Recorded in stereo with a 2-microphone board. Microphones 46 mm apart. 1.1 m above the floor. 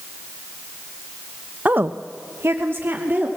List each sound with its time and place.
1.6 s a woman speaking: 40° right (ahead or behind), 0.8 m; by 3.3 s 50° right (ahead or behind), 2 m